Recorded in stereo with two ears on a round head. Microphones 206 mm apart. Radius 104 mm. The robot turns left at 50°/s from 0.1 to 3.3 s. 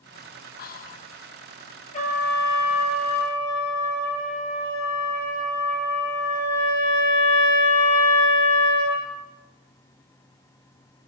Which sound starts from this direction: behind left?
A trumpet, at 1.9 s.